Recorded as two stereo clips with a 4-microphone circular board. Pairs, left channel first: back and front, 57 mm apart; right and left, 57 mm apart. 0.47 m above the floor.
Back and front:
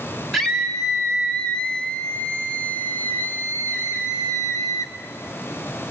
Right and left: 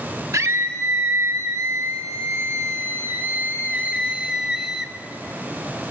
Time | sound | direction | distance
0.3 | a scream | 95° left | 2.5 m